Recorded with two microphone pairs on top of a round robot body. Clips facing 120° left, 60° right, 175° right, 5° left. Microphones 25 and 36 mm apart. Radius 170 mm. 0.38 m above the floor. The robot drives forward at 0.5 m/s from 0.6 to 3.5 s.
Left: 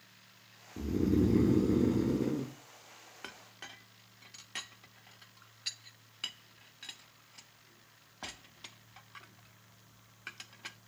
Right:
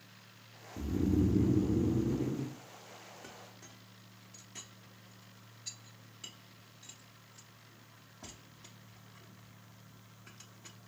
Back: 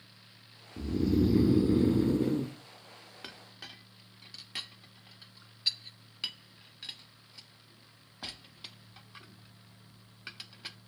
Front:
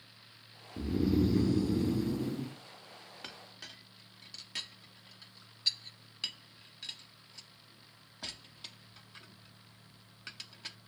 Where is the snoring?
75° left, 0.6 m; by 2.5 s 145° left, 0.9 m.